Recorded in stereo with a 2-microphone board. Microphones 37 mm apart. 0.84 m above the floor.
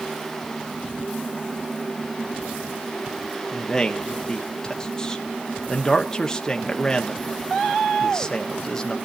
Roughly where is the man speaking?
Centre.